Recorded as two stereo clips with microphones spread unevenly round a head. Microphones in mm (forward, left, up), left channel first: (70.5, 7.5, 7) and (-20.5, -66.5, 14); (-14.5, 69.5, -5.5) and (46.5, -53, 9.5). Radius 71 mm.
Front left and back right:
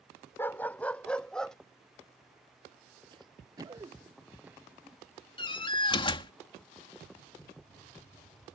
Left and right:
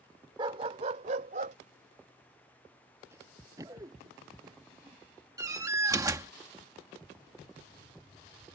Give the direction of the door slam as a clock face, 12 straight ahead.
12 o'clock.